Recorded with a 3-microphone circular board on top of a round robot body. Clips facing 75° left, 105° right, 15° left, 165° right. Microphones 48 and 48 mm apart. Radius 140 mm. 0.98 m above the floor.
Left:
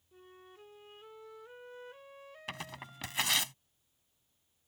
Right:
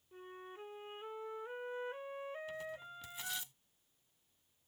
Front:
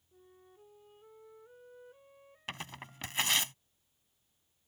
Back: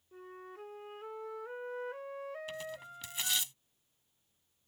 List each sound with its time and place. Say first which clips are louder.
0.1 s a flute: right 5 dB, back 12 dB; 170° right
2.5 s tearing paper: left 1 dB, back 2 dB; 55° left